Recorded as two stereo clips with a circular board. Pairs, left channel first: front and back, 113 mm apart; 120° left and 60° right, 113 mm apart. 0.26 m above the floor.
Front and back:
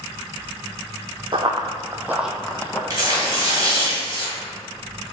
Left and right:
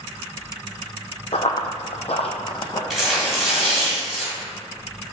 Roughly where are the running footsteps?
Behind left.